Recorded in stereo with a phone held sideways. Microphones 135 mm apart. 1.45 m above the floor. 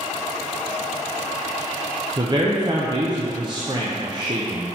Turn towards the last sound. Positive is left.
turn(degrees=-30)  # may be behind; listen again after turning